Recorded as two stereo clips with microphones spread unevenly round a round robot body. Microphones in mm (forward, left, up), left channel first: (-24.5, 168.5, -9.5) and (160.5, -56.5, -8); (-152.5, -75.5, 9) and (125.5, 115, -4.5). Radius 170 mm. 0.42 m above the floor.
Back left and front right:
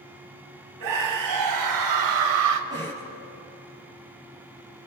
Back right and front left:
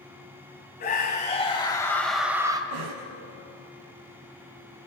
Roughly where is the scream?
Right.